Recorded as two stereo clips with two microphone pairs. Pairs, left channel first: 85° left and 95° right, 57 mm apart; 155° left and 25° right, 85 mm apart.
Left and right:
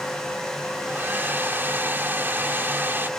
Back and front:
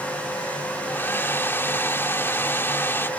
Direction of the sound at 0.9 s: 145° right.